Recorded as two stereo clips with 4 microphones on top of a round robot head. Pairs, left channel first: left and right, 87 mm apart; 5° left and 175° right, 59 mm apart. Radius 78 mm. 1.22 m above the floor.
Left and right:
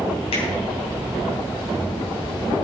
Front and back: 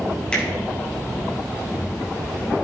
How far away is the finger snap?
About 7 m.